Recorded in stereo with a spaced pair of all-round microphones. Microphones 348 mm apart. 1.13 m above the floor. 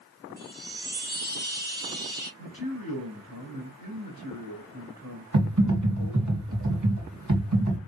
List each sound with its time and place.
0.4 s a chime: 30° left (ahead or behind), 2 m
2.4 s a man speaking: 85° left, 2.5 m
5.3 s typing on a keyboard: 55° right (ahead or behind), 1.7 m